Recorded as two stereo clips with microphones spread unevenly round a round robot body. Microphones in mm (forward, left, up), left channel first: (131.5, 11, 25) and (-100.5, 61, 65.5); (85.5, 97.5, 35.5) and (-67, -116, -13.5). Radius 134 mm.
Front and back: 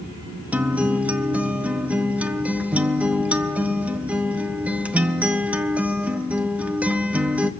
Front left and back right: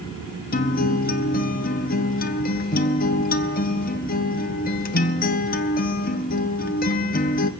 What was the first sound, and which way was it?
A guitar, 65° left.